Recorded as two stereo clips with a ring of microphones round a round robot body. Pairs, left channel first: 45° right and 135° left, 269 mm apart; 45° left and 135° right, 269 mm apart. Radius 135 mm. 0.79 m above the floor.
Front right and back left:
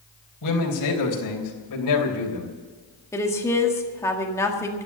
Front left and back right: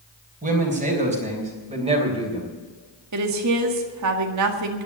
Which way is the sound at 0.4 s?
70° right.